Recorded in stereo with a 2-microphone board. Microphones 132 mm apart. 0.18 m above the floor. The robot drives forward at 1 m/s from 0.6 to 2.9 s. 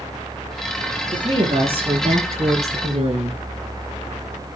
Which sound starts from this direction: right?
A woman speaking, at 1.1 s.